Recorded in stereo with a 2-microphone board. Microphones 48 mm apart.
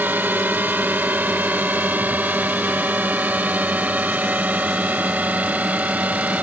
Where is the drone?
45° right (ahead or behind); by 6.4 s 35° right (ahead or behind).